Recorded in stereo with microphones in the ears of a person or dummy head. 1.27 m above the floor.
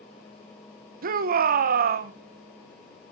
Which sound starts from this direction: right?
A shout, at 1.0 s.